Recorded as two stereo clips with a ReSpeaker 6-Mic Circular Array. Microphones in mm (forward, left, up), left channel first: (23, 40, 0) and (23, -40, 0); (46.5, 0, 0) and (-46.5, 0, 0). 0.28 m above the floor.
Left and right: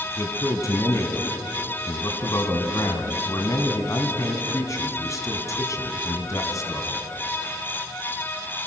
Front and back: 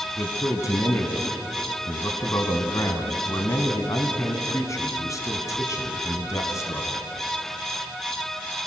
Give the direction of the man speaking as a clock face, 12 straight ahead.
10 o'clock.